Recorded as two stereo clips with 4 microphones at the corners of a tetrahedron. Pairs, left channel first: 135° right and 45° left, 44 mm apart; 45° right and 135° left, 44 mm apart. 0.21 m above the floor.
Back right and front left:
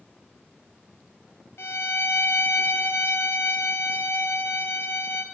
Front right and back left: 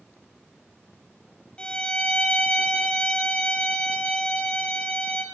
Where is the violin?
115° right, 0.6 m.